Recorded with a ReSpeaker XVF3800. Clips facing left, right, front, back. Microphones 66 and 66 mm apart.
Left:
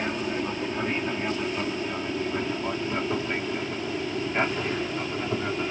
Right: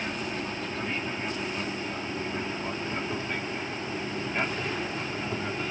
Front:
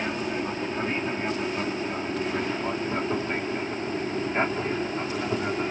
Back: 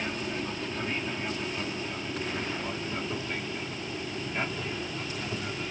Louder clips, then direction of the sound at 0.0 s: Left 4 dB, front 5 dB; 50° left.